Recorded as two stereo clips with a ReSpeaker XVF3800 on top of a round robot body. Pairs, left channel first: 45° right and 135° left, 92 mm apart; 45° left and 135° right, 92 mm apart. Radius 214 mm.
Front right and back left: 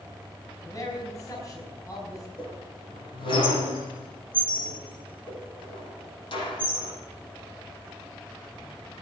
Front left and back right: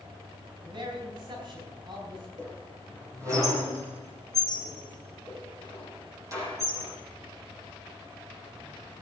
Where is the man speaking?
100° right, 5 m.